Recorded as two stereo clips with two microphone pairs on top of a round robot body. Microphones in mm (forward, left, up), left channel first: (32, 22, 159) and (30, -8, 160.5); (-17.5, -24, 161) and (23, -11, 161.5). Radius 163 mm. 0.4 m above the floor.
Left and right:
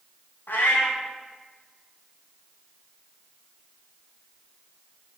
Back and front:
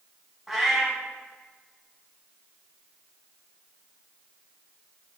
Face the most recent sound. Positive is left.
turn(degrees=105)